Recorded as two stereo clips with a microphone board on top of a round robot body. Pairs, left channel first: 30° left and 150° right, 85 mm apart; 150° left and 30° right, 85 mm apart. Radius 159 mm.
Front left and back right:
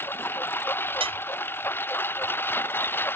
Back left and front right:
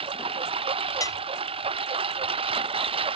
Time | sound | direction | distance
0.0 | a lawn mower | 35° right | ?
1.0 | dishes clattering | 160° right | ?